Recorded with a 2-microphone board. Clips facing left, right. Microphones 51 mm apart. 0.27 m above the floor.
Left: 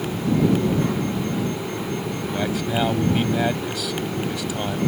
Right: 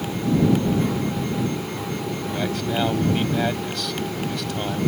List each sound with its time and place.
2.3 s a man speaking: 5° left (ahead or behind)